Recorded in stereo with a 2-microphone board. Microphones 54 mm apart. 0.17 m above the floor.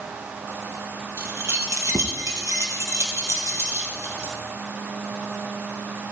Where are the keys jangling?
50° right (ahead or behind), 3 m; by 4.3 s 45° right (ahead or behind), 4 m.